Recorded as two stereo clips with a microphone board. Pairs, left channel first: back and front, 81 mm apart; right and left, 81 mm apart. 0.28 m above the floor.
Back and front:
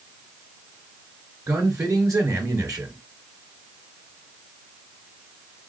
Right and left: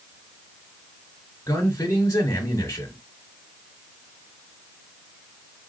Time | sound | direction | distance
1.5 | a man speaking | 40° right | 3 m